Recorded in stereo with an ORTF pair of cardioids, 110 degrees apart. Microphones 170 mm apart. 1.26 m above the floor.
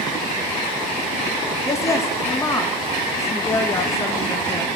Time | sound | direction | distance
1.6 | a woman speaking | 20° left | 1.3 m